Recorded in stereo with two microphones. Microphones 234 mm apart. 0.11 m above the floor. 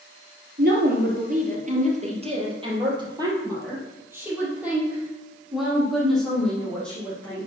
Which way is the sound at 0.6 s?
45° right (ahead or behind).